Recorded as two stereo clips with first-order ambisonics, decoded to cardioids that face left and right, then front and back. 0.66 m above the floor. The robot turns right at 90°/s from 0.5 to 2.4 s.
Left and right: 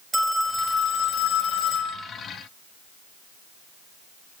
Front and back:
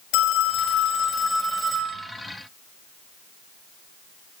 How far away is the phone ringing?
About 1.6 m.